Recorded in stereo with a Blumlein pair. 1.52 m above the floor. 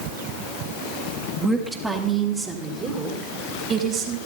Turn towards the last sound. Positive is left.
turn(degrees=-30)